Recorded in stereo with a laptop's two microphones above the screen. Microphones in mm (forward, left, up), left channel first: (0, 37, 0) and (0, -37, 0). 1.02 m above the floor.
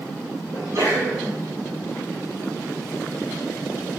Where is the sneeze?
45° right (ahead or behind), 1.4 m.